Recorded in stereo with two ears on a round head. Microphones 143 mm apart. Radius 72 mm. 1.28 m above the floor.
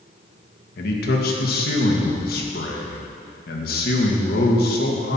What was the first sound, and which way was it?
A man speaking, 65° left (ahead or behind).